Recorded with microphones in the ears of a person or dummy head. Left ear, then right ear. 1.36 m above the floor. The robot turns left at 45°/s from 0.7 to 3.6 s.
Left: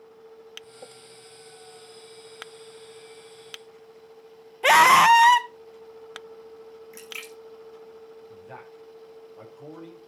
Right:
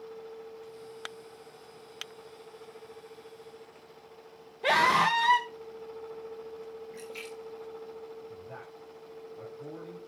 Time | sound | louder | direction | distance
4.6 | a scream | left 9 dB | 45° left (ahead or behind) | 1.2 m
6.9 | a splash | left 7 dB | 45° left (ahead or behind) | 3 m
8.3 | a man speaking | left 1 dB | 50° left (ahead or behind) | 6 m